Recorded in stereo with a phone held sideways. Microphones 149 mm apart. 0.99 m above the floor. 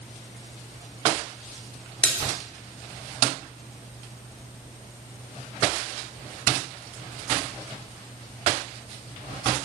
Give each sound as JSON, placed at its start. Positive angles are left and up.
{"t": 2.0, "sound": "a splash", "side_deg": 10, "distance_m": 2.5}